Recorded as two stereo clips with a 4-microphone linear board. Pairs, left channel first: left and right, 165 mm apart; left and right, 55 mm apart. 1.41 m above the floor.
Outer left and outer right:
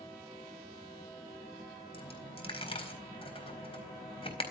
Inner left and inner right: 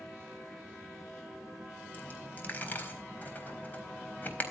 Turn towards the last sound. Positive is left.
turn(degrees=35)  # may be behind; listen again after turning